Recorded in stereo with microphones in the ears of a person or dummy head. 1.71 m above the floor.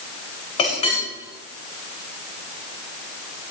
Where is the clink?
30° left (ahead or behind), 7 m.